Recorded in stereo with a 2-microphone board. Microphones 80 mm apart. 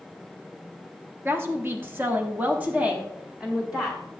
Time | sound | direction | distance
1.2 | a woman speaking | 30° right (ahead or behind) | 1.0 m